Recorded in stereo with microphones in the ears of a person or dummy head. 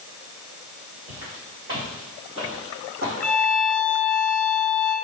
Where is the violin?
10° left (ahead or behind), 1.4 m.